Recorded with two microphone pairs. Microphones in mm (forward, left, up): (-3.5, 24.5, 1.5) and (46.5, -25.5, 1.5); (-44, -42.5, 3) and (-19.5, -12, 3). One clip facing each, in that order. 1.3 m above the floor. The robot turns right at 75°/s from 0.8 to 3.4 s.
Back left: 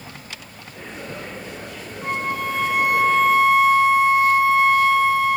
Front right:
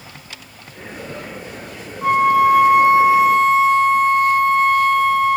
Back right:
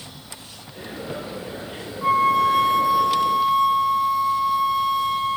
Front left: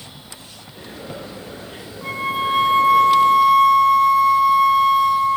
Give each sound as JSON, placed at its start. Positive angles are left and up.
{"t": 2.0, "sound": "a flute", "azimuth_deg": -50, "distance_m": 1.1}